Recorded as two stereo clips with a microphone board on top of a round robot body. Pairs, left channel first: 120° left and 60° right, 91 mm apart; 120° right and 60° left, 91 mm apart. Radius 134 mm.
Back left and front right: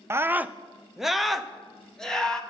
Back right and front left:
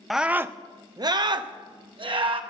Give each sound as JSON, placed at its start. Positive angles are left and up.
{"t": 0.1, "sound": "a scream", "azimuth_deg": -30, "distance_m": 0.5}